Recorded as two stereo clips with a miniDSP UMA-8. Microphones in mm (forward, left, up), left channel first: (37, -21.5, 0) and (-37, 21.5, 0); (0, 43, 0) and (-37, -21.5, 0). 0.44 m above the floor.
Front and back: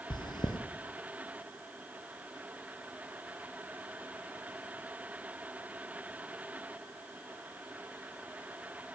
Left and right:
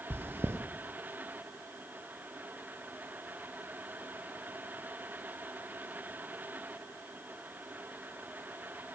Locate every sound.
0.1 s chewing: 60° right, 2.5 m